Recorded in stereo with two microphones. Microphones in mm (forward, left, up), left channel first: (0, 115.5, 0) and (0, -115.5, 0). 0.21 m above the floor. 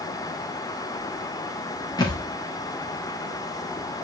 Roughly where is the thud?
Centre.